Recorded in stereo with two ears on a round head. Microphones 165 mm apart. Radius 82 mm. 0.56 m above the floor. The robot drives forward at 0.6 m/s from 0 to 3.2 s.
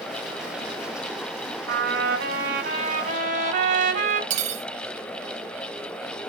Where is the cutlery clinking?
40° right (ahead or behind), 0.6 m.